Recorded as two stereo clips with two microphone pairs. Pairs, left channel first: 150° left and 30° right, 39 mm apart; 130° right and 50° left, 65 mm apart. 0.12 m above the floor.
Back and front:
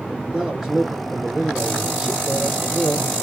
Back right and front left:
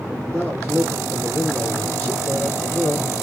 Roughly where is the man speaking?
Right.